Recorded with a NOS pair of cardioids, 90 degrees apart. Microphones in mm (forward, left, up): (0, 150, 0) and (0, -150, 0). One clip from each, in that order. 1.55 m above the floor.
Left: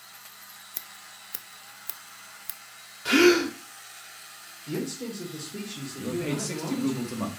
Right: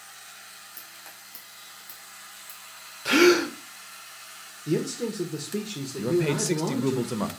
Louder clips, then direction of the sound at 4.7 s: Right 6 dB; 70° right.